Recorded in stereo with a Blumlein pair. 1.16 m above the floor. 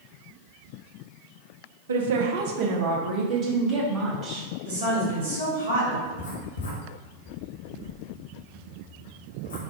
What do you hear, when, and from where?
1.9 s a woman speaking: 65° right, 0.6 m; by 4.5 s 25° right, 1.9 m
4.7 s a woman speaking: 65° right, 1.9 m
6.0 s writing: 65° left, 1.1 m